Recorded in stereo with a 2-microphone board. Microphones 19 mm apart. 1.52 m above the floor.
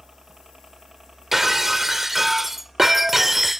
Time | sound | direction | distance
0.0 | a helicopter | 30° right (ahead or behind) | ?
1.3 | breaking glass | 15° right (ahead or behind) | ?